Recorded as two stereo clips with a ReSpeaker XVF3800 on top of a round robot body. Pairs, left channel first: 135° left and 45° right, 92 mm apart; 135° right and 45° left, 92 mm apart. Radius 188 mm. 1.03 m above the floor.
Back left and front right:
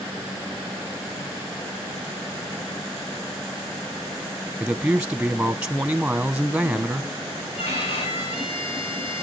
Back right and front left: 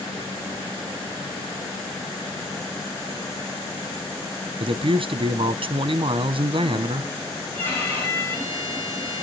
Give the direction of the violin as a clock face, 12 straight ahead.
7 o'clock.